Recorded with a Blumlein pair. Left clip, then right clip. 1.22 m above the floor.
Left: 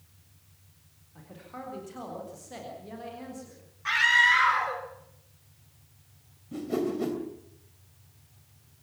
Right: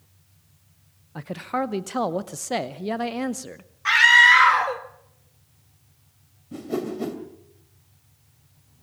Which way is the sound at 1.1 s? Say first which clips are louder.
Right 17 dB; 50° right.